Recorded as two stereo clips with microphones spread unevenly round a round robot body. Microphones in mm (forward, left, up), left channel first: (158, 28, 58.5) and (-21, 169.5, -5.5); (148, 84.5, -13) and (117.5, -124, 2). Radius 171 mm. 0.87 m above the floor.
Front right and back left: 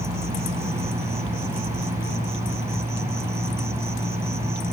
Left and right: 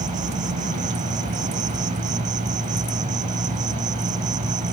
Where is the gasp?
No gasp in this recording.